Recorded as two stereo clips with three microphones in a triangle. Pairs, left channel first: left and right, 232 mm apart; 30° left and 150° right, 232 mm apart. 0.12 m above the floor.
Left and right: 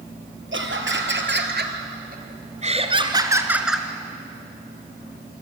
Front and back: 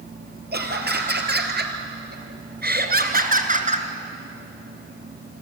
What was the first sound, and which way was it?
Laughter, 110° right.